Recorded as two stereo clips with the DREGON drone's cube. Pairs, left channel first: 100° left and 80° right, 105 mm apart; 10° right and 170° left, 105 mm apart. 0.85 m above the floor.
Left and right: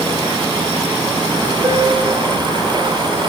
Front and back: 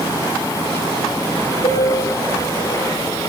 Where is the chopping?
I don't hear chopping.